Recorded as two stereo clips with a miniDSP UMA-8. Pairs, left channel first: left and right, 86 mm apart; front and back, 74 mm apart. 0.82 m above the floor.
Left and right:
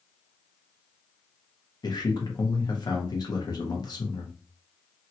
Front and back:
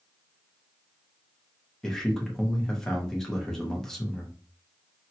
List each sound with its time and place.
1.8 s a man speaking: 80° left, 1.0 m